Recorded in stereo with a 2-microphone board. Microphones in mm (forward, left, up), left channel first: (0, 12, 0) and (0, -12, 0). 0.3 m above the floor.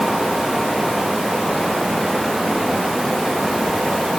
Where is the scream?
No scream in this recording.